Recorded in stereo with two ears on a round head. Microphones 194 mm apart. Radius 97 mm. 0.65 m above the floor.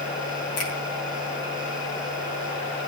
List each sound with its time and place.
0.6 s a finger snap: 70° left (ahead or behind), 6.5 m